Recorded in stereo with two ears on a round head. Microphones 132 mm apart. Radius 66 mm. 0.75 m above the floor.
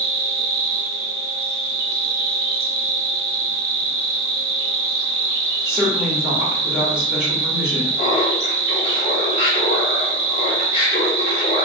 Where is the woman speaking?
5° right (ahead or behind), 1.4 m.